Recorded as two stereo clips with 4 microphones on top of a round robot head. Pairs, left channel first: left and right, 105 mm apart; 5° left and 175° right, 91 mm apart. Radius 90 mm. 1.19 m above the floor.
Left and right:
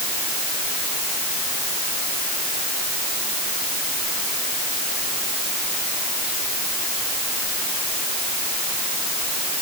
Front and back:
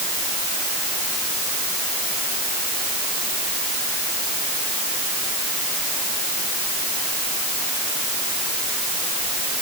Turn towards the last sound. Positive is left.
No sound to turn to.